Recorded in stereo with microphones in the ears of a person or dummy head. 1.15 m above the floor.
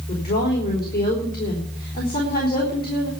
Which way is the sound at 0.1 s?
50° left (ahead or behind).